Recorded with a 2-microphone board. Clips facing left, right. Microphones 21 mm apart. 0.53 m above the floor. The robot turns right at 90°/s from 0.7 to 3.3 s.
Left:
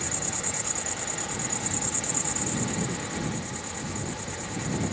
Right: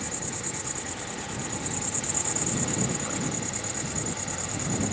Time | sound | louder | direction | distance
0.0 | an insect | left 2 dB | 45° left | ?